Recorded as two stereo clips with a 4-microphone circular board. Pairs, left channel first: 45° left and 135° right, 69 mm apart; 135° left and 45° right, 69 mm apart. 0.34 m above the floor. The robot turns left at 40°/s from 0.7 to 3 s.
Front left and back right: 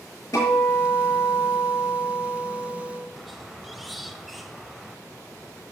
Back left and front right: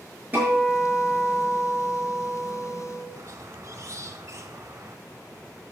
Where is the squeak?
45° right, 0.7 m.